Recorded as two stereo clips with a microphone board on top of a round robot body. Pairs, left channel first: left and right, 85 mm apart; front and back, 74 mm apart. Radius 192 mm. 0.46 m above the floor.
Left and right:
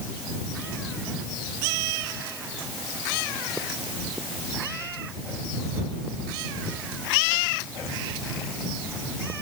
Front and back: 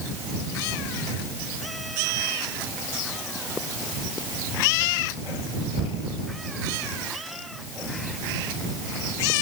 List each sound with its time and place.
Only background noise.